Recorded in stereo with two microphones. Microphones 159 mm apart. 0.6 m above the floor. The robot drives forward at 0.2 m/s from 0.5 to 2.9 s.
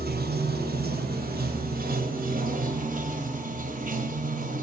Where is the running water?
80° right, 1.0 m; by 4.6 s 60° right (ahead or behind), 1.2 m.